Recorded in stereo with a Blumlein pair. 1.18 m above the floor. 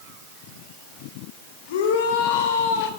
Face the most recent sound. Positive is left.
turn(degrees=55)